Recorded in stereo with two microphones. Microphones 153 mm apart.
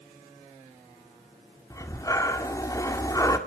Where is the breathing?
20° left (ahead or behind), 1.9 m.